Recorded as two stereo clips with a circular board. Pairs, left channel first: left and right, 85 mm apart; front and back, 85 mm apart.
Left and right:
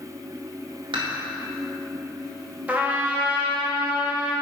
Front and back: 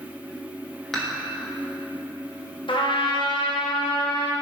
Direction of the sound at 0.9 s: 85° right.